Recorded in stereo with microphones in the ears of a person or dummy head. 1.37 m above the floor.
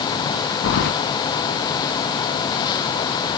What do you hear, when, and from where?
0.6 s keys jangling: 60° left (ahead or behind), 1.0 m